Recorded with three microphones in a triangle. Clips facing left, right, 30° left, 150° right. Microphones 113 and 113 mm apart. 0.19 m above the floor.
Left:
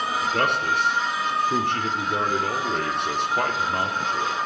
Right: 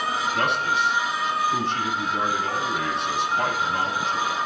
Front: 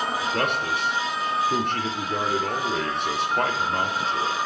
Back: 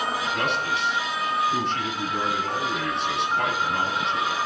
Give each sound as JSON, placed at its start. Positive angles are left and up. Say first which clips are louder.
{"t": 0.2, "sound": "a man speaking", "louder": "left 2 dB, front 1 dB", "azimuth_deg": 65, "distance_m": 4.0}